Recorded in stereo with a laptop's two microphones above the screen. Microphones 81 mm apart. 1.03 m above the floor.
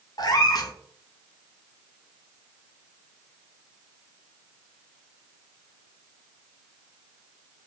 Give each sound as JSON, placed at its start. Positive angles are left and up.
{"t": 0.2, "sound": "a cat meowing", "side_deg": 55, "distance_m": 0.5}